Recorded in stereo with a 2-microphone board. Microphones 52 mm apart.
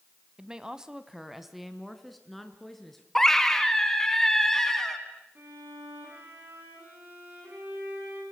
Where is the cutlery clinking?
No cutlery clinking in this recording.